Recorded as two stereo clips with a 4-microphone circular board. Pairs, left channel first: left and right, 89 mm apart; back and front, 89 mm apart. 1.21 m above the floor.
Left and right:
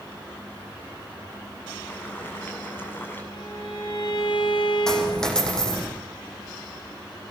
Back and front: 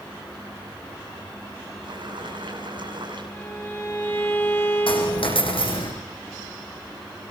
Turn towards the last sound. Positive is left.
turn(degrees=170)